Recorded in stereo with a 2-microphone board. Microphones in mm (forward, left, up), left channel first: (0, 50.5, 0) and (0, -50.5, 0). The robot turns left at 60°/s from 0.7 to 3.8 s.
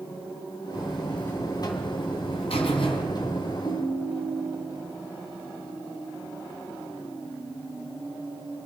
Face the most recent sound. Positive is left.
turn(degrees=50)  # may be behind; listen again after turning